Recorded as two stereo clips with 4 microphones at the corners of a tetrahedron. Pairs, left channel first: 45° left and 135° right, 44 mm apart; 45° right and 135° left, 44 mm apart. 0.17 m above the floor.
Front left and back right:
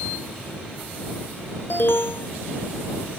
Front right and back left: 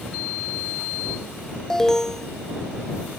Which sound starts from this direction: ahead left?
An alarm, at 1.7 s.